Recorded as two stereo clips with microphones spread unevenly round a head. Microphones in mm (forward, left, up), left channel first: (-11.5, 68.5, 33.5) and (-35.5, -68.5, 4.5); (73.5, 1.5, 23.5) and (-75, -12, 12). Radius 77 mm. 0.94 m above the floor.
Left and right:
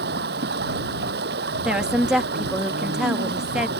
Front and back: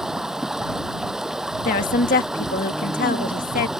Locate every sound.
0.0 s running water: 90° right
1.6 s a woman speaking: 20° right